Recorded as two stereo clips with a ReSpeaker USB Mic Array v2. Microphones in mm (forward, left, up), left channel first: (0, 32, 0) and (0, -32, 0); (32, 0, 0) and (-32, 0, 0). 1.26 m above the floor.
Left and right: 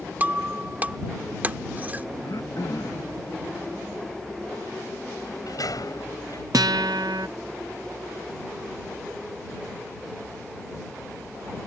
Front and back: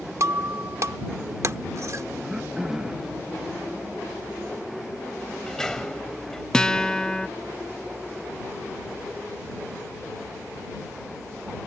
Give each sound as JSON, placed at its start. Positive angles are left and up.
{"t": 0.2, "sound": "breaking glass", "azimuth_deg": -150}
{"t": 2.2, "sound": "throat clearing", "azimuth_deg": 100}
{"t": 5.2, "sound": "a sliding door", "azimuth_deg": 80}
{"t": 6.5, "sound": "a guitar", "azimuth_deg": -80}